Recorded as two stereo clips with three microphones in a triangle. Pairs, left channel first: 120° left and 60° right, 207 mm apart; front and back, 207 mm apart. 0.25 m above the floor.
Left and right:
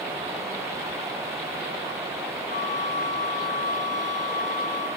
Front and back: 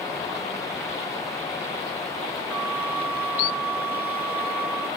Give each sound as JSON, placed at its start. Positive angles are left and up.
{"t": 2.5, "sound": "a flute", "azimuth_deg": -80, "distance_m": 4.5}